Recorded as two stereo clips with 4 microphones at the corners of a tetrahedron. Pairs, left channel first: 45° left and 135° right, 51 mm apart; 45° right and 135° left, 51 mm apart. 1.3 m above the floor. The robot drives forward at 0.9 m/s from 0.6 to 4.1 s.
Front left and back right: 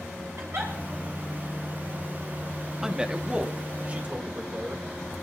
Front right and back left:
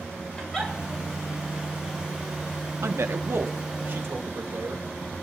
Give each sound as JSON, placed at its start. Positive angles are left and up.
{"t": 0.4, "sound": "a giggle", "azimuth_deg": -125, "distance_m": 3.5}
{"t": 2.8, "sound": "a man speaking", "azimuth_deg": 145, "distance_m": 0.8}